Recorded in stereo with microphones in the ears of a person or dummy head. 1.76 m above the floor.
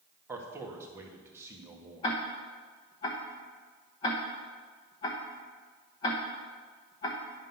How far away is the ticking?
About 1.0 m.